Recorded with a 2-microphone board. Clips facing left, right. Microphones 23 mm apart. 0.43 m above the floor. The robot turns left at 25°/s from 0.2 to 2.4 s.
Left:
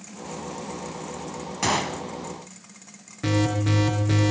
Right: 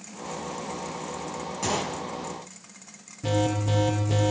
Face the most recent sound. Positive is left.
turn(degrees=80)